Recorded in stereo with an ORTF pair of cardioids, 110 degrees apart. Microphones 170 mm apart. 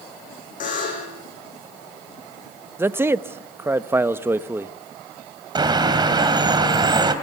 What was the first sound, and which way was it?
A buzzer, 50° left.